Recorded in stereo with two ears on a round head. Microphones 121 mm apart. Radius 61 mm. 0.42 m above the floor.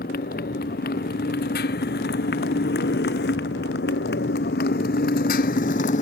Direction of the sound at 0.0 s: 70° left (ahead or behind).